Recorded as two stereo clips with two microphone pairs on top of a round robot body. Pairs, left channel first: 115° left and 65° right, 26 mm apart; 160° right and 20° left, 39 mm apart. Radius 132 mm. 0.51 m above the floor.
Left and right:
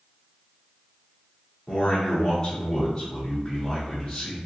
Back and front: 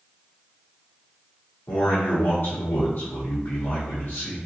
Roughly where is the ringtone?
No ringtone in this recording.